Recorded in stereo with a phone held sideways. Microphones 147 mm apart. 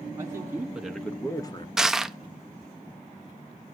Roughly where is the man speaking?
Right.